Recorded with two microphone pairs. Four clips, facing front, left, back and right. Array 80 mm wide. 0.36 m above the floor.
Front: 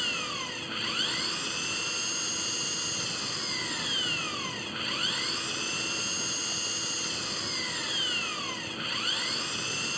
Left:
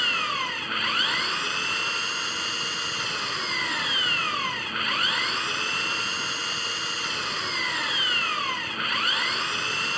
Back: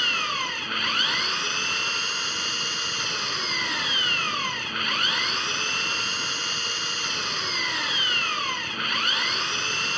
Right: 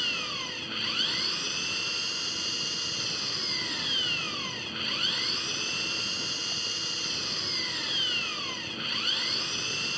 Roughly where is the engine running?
Behind left.